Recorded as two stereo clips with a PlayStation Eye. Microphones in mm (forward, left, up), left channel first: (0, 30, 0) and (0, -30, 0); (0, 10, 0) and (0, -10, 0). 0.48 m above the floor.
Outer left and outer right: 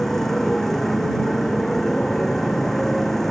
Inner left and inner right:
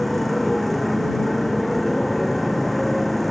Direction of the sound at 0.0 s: 5° left (ahead or behind).